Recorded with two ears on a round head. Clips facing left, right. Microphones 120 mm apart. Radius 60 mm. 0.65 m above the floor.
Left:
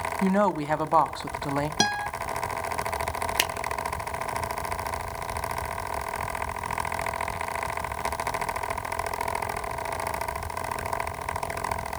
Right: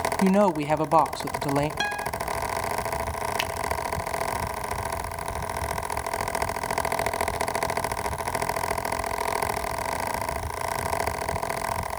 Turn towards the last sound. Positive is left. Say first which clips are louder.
# even
turn(degrees=55)  # may be behind; listen again after turning